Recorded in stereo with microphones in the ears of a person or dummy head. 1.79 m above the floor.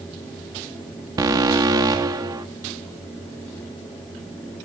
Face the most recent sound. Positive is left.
turn(degrees=-10)  # may be behind; listen again after turning